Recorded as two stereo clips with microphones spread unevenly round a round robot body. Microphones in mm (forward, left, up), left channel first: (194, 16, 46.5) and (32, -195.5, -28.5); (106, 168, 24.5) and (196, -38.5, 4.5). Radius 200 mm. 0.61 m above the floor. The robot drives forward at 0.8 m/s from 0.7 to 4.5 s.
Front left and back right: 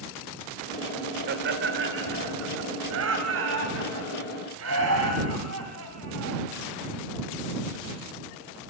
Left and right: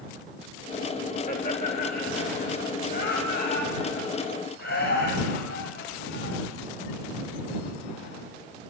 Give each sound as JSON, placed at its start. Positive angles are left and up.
{"t": 1.3, "sound": "laughter", "azimuth_deg": -175, "distance_m": 1.4}